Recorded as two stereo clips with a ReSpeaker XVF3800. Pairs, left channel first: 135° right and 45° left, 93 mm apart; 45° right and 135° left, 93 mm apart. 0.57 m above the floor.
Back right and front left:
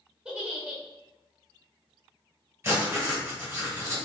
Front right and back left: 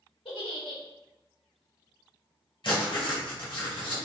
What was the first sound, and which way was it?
A giggle, 35° right.